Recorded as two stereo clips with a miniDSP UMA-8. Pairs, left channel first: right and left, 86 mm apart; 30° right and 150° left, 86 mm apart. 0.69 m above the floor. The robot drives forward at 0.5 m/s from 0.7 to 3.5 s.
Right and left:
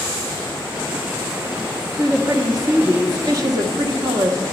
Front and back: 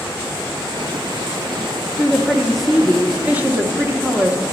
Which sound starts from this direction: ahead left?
A woman speaking, at 2.0 s.